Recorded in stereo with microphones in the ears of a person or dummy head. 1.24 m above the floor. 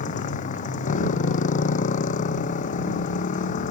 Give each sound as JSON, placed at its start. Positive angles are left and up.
{"t": 0.0, "sound": "a motorcycle", "side_deg": 40}